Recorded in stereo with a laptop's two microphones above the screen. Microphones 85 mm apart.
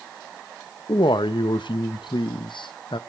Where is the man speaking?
75° left (ahead or behind), 0.8 m.